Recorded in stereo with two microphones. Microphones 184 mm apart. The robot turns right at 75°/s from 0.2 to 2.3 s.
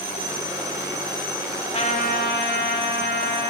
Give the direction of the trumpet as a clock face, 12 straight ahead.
11 o'clock.